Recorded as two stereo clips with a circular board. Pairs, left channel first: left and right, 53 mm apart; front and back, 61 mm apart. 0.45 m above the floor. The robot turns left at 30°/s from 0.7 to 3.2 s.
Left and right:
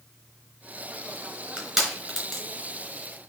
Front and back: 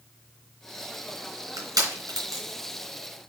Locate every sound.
1.6 s crushing: 165° right, 4 m; by 2.4 s 165° left, 4 m